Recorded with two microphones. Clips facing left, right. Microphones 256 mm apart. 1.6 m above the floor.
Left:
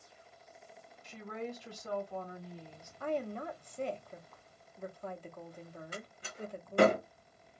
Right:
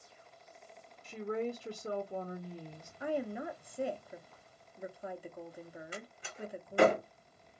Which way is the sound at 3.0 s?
10° right (ahead or behind).